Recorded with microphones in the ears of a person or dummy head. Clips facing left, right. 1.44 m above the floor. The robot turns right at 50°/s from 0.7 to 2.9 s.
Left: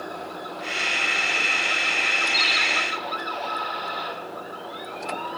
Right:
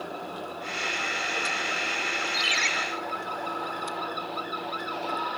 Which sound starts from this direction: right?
A ringtone, at 2.3 s.